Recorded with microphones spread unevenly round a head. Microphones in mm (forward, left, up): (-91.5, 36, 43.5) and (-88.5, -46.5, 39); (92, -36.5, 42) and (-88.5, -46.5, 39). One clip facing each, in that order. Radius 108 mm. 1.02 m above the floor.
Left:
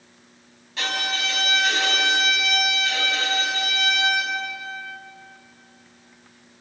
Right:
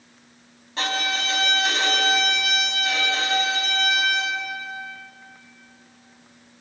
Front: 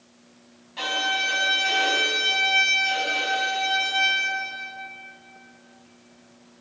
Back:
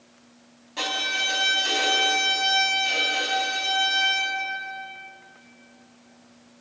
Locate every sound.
0.8 s a violin: 145° right, 6.5 m